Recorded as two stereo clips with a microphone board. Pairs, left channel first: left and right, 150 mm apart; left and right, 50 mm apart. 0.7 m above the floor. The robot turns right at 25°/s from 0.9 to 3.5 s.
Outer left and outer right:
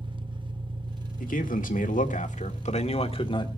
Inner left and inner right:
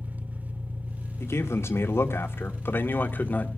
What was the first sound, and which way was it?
An engine running, 35° right.